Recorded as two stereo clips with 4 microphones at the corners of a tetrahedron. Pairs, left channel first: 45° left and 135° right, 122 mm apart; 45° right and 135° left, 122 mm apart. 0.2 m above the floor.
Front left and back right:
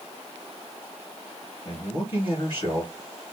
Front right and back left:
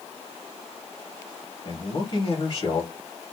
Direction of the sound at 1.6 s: Straight ahead.